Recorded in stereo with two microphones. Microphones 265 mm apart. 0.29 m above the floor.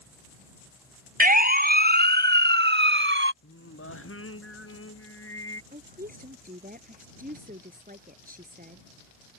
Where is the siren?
35° right (ahead or behind); by 3.3 s 45° right (ahead or behind).